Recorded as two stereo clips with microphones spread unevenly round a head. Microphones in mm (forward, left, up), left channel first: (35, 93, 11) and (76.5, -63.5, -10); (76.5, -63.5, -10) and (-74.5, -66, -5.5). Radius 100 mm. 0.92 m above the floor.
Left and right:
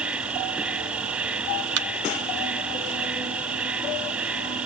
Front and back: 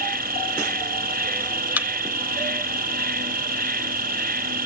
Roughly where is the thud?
Right.